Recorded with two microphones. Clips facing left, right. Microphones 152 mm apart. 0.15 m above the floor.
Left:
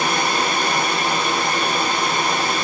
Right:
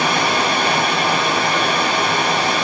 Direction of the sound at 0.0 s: 65° right (ahead or behind).